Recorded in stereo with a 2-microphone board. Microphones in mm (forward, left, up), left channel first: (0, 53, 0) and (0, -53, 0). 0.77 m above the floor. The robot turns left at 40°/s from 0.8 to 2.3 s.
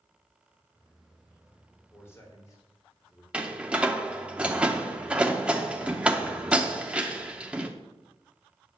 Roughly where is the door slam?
Centre.